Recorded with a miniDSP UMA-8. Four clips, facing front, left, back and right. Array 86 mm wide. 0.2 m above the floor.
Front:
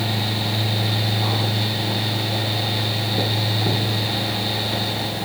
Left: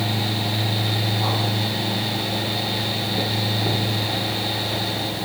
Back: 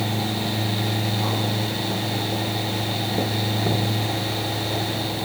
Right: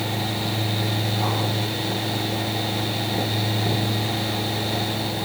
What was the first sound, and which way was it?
Only background noise.